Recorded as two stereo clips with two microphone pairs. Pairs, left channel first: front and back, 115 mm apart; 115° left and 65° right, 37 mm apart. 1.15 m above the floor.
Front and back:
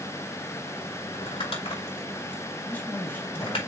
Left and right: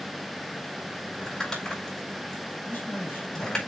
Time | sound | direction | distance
1.1 | crumpling | 40° left | 4.5 m
2.6 | a man speaking | 80° left | 3 m